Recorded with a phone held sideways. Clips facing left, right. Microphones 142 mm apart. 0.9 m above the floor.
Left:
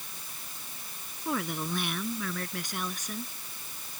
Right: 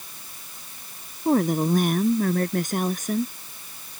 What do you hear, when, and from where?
1.2 s a woman speaking: 40° right (ahead or behind); by 3.3 s 50° right (ahead or behind)